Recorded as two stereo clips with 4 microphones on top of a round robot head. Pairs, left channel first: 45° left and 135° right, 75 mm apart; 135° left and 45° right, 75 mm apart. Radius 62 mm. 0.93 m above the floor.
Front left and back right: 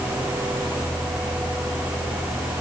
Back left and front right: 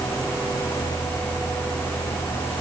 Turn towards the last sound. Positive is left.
No sound to turn to.